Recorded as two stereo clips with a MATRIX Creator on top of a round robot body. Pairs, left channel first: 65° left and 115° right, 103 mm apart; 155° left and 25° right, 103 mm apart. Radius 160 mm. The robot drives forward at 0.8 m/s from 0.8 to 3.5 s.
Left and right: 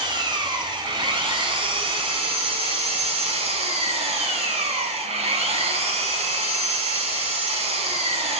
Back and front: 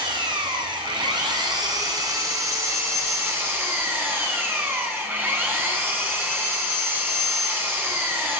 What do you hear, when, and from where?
0.0 s an engine running: 65° right, 5 m; by 8.4 s 95° right, 4.5 m